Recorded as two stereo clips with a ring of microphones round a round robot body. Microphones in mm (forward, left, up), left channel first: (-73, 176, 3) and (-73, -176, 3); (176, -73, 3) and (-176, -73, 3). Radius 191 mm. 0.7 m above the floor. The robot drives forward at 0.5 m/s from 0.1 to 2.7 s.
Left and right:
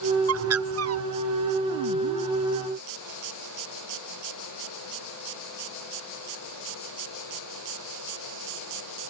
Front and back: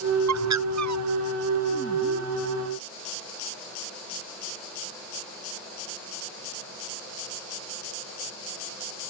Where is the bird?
140° right.